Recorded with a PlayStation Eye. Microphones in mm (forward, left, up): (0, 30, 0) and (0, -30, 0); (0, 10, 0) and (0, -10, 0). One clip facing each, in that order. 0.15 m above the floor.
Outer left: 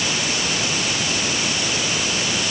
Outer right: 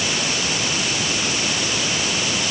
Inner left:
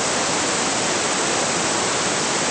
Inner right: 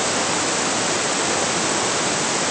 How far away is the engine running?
I don't hear an engine running.